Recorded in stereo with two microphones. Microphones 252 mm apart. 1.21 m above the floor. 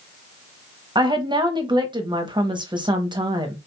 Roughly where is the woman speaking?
Centre.